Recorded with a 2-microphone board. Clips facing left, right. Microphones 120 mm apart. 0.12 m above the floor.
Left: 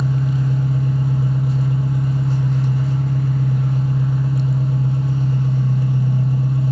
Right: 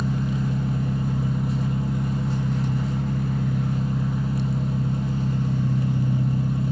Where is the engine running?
5° left (ahead or behind), 1.5 m.